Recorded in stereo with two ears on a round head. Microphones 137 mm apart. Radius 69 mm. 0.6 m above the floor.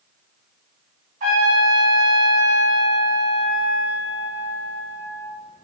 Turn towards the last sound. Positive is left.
turn(degrees=-55)  # may be behind; listen again after turning